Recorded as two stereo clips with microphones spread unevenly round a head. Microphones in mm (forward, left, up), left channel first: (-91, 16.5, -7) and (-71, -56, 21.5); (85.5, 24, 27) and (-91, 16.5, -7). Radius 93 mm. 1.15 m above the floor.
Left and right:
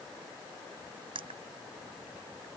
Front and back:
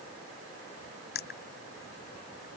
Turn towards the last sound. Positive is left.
turn(degrees=-40)